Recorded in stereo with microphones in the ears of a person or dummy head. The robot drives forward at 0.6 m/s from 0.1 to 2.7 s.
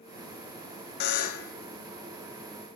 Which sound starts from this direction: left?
A buzzer, at 1.0 s.